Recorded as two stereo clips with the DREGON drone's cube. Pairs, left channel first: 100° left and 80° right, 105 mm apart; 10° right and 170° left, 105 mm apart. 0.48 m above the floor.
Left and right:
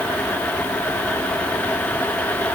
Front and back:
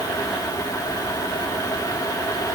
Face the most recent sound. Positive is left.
No sound to turn to.